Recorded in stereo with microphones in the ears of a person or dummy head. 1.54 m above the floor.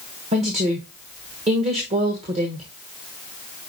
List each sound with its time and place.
0.3 s a woman speaking: 30° right (ahead or behind), 1.2 m